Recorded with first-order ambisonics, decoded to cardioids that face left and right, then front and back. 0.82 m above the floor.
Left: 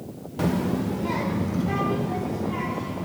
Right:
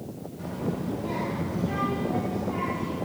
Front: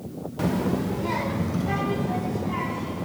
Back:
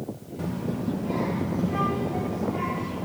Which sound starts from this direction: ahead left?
A child speaking, at 0.4 s.